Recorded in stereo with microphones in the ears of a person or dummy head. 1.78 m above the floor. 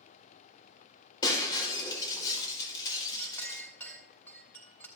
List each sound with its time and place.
1.2 s breaking glass: 20° left (ahead or behind), 4 m
3.2 s a clink: 15° left (ahead or behind), 2.5 m